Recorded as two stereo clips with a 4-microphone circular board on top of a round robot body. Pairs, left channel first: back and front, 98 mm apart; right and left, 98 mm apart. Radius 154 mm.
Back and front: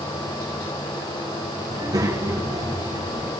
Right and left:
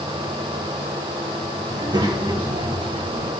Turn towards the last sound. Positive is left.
turn(degrees=55)